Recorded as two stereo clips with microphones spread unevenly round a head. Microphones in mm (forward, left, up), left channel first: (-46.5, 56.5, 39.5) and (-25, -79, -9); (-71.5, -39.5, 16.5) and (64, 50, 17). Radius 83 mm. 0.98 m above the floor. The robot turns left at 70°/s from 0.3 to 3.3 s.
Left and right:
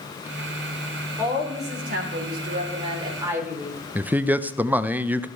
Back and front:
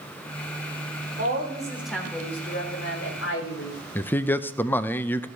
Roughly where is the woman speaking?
Ahead.